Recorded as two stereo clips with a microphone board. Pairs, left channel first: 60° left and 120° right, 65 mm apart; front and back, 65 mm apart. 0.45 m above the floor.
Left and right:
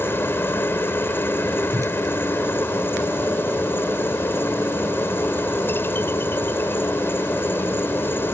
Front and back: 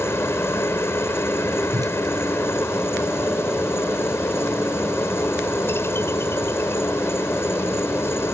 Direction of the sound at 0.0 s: 25° left.